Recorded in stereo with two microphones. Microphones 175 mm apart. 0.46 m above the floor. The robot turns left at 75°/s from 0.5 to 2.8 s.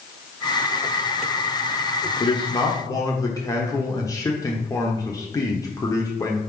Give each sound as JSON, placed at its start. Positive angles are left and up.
{"t": 2.2, "sound": "a man speaking", "azimuth_deg": 85, "distance_m": 0.9}